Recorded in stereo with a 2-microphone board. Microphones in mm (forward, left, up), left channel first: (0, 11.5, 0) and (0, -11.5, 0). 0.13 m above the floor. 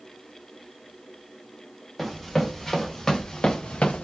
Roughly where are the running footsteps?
Centre.